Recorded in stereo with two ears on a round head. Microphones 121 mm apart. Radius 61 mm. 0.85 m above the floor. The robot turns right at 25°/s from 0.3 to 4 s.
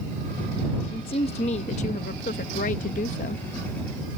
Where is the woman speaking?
45° left; by 3.4 s 110° left.